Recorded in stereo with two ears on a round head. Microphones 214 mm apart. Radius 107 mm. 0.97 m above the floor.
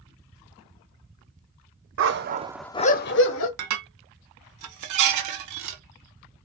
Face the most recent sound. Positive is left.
turn(degrees=-85)